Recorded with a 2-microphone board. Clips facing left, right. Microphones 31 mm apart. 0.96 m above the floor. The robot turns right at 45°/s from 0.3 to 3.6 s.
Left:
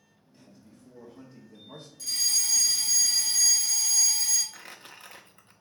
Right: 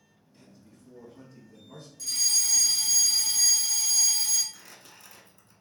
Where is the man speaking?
15° left, 0.9 m; by 1.9 s 85° left, 0.9 m.